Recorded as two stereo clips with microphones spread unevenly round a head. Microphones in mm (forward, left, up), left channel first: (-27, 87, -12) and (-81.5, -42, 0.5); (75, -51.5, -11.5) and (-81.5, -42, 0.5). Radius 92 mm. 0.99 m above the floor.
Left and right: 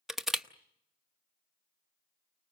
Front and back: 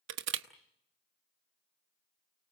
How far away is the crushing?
About 1.0 m.